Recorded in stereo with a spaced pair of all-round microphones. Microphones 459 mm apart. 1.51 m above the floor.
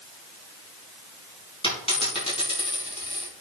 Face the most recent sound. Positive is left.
turn(degrees=10)  # may be behind; listen again after turning